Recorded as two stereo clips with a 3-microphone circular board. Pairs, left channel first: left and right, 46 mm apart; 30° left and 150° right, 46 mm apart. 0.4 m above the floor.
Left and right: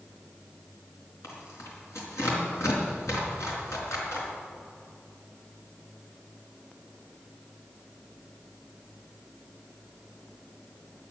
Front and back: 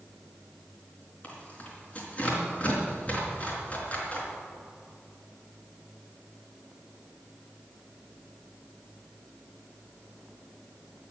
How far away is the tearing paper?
About 4 m.